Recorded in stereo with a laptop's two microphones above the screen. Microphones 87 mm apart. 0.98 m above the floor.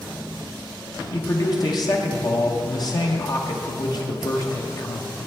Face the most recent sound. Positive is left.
turn(degrees=50)  # may be behind; listen again after turning